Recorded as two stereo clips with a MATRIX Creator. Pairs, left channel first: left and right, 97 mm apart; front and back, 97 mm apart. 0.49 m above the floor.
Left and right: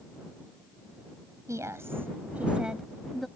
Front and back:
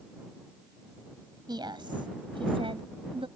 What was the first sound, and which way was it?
A woman speaking, 145° right.